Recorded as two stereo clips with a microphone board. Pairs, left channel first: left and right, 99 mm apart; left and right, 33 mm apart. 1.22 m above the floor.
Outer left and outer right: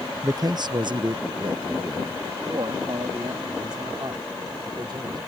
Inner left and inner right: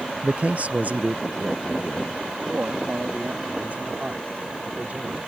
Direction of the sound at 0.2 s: 30° right (ahead or behind).